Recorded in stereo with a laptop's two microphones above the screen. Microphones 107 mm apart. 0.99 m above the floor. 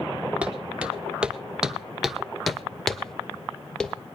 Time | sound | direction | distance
0.4 | footsteps | 10° right (ahead or behind) | 1.2 m